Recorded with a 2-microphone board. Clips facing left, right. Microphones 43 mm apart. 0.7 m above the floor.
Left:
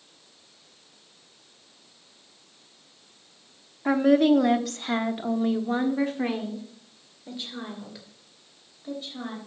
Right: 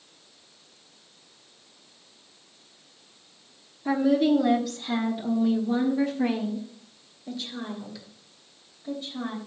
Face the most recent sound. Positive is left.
turn(degrees=15)  # may be behind; listen again after turning